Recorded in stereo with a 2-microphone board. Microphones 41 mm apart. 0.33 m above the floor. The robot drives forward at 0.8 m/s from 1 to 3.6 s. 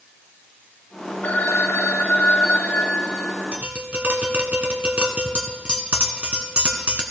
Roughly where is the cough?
I don't hear a cough.